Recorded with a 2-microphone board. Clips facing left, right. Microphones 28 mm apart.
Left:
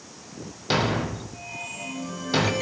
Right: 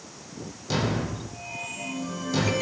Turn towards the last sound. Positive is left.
turn(degrees=45)  # may be behind; listen again after turning